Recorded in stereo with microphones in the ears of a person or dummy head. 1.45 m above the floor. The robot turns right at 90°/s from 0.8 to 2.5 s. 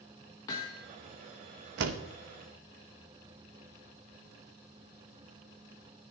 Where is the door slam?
60° right (ahead or behind), 1.4 m; by 2.0 s 75° right (ahead or behind), 1.4 m.